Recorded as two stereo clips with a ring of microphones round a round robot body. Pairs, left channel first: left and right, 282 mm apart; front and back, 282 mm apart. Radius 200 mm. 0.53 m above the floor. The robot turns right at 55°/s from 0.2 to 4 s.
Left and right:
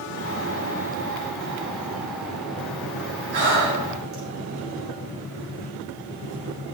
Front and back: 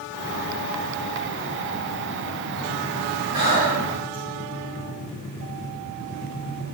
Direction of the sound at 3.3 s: 85° right.